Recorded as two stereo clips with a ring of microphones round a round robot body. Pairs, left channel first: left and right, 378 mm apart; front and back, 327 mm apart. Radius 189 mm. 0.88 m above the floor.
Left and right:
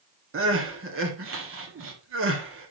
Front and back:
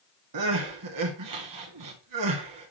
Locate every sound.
0.3 s crying: 145° right, 1.8 m